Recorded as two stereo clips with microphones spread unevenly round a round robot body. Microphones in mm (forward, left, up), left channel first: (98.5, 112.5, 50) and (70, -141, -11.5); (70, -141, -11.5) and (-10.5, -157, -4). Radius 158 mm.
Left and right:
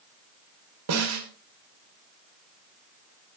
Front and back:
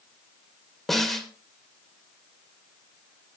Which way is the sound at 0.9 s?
75° right.